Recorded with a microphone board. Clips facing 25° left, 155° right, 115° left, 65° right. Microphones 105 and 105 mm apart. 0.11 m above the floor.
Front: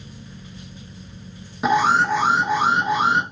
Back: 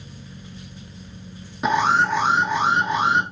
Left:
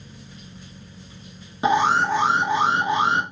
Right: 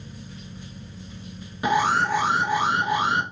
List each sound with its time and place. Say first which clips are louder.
1.6 s an alarm: front 1 dB, left 2 dB; 105° left, 0.9 m